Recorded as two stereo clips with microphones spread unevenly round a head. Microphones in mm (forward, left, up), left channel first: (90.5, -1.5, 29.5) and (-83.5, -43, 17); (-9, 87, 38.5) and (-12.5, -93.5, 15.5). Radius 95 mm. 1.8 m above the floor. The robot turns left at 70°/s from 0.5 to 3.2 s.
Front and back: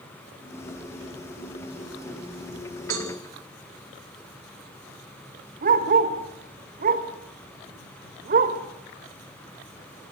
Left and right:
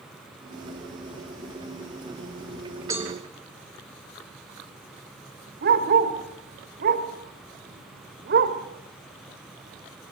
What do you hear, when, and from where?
2.9 s a cowbell: 165° right, 5.5 m; by 3.1 s straight behind, 5.5 m
5.6 s a dog barking: 125° right, 3 m